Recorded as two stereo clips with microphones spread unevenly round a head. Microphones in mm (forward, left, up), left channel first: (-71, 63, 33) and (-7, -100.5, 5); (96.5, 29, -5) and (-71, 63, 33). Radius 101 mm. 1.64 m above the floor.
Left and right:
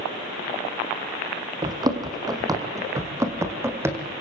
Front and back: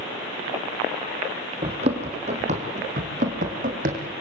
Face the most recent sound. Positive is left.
turn(degrees=-150)